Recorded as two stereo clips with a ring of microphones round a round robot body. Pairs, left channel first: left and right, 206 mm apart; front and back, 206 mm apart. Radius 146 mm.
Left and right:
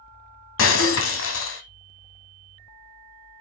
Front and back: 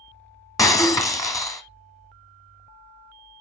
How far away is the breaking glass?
About 1.3 m.